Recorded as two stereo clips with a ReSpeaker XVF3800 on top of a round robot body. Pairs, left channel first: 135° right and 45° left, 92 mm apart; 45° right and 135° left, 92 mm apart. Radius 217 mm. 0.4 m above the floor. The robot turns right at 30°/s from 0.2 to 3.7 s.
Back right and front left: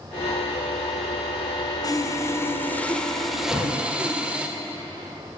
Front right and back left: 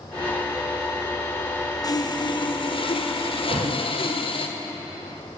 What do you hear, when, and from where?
1.8 s sawing: 90° right, 1.6 m; by 4.5 s 35° right, 1.6 m
3.5 s a thud: 150° left, 8 m; by 3.7 s 155° left, 8 m